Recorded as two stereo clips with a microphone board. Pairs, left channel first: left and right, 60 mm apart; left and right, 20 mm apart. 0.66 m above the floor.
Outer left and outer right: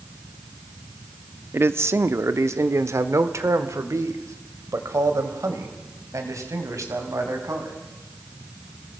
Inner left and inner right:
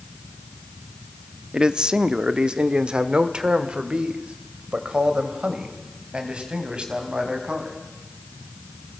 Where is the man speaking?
40° right (ahead or behind), 0.8 m; by 7.8 s 60° right (ahead or behind), 4.5 m.